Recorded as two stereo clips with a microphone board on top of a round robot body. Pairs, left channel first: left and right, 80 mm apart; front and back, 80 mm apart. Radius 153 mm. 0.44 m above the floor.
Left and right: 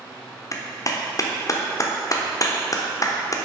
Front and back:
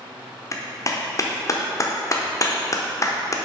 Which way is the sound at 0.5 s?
45° left.